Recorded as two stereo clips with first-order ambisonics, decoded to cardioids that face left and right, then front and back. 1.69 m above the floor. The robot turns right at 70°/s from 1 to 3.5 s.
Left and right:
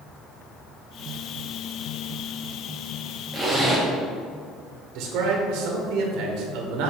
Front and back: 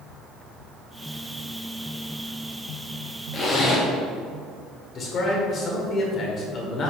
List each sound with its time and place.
3.3 s a zipper: 10° right, 1.1 m; by 3.9 s straight ahead, 1.1 m
5.0 s a man speaking: 55° right, 1.5 m